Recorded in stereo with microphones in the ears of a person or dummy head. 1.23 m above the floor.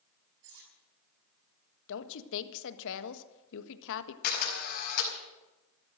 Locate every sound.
0.4 s cutlery clinking: 65° right (ahead or behind), 5.5 m
1.9 s a woman speaking: 75° left (ahead or behind), 1.4 m
4.2 s a camera shutter: 45° left (ahead or behind), 4.5 m